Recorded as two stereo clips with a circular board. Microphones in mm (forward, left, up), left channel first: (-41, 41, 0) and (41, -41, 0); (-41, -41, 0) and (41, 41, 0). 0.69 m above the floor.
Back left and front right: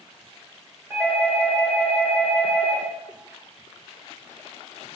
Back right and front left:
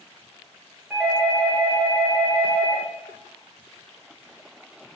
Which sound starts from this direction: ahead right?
A doorbell, at 0.9 s.